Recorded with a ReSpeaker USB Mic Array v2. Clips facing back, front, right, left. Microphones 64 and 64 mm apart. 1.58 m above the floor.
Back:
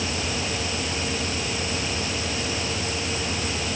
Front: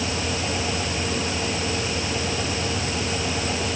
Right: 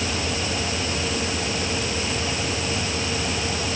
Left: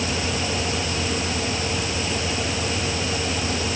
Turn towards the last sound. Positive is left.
No sound to turn to.